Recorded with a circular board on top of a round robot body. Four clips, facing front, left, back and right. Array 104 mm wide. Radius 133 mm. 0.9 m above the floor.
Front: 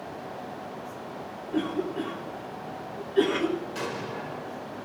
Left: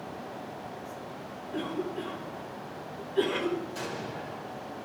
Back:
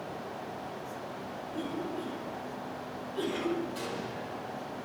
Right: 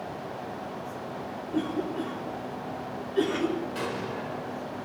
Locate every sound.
1.5 s a cough: 20° right, 3.5 m
3.8 s an explosion: 45° right, 4 m